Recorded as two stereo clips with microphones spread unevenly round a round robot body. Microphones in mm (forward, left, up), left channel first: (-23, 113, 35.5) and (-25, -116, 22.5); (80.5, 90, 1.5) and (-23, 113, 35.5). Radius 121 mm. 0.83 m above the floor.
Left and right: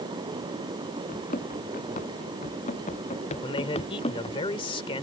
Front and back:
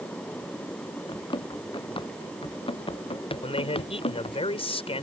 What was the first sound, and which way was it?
Running footsteps, 30° left.